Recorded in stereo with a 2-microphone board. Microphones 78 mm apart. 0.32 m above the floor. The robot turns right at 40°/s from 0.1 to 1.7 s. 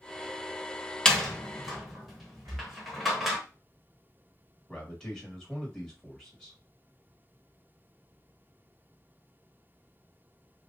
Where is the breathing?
50° right (ahead or behind), 1.2 m.